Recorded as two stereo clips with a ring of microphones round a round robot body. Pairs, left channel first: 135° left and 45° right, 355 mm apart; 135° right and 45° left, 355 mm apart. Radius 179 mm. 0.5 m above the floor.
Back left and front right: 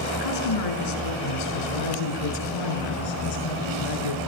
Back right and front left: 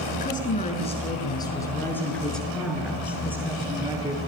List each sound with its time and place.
0.1 s a woman speaking: 160° left, 5.5 m; by 4.3 s 125° left, 7 m